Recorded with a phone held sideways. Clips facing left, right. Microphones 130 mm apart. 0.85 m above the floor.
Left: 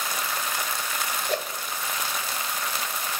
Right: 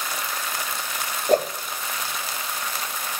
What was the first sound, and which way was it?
A whoosh, 45° right (ahead or behind).